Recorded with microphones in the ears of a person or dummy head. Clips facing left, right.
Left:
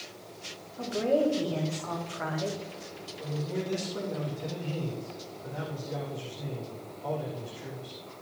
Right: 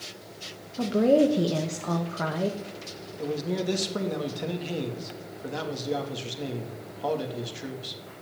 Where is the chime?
No chime in this recording.